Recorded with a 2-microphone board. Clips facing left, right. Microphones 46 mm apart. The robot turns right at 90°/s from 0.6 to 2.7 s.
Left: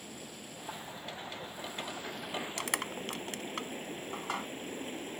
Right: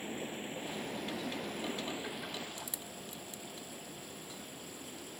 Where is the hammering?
I don't hear hammering.